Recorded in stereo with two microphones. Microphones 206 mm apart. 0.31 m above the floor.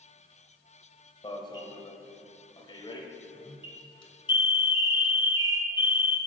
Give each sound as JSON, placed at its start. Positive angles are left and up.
{"t": 1.2, "sound": "an alarm", "side_deg": 25, "distance_m": 1.7}